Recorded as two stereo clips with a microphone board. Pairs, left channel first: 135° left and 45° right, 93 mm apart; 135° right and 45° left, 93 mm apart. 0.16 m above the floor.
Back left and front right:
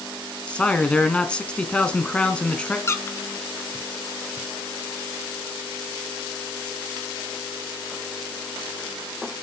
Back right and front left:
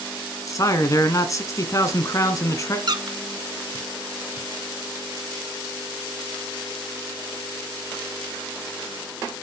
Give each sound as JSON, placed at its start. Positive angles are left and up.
{"t": 0.5, "sound": "a man speaking", "azimuth_deg": -155, "distance_m": 1.4}
{"t": 2.9, "sound": "a squeak", "azimuth_deg": 75, "distance_m": 0.7}